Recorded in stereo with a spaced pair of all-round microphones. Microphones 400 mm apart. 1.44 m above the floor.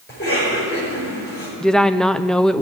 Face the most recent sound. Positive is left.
turn(degrees=0)  # may be behind; listen again after turning